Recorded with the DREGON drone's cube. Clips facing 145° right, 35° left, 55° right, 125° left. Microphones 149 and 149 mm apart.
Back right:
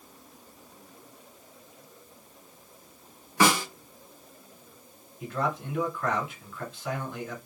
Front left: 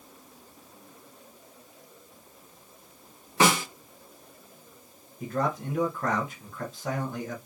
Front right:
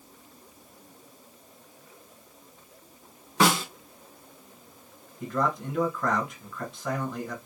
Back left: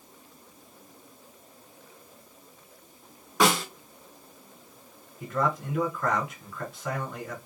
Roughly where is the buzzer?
No buzzer in this recording.